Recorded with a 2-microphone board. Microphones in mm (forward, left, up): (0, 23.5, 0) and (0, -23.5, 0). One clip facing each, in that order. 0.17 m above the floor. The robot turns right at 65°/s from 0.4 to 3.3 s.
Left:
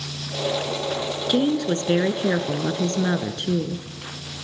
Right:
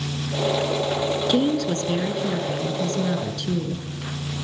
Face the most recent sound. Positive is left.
turn(degrees=135)